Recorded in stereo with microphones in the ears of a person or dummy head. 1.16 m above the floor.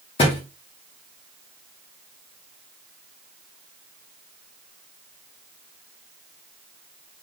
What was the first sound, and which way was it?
A thud, 35° left (ahead or behind).